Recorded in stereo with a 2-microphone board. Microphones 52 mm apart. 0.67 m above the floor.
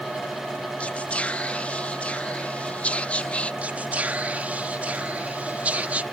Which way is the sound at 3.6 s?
30° right (ahead or behind).